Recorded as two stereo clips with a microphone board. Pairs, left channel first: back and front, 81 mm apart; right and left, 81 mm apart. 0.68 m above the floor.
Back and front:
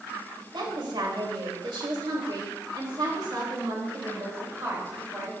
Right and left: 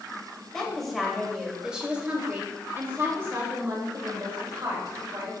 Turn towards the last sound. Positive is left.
turn(degrees=60)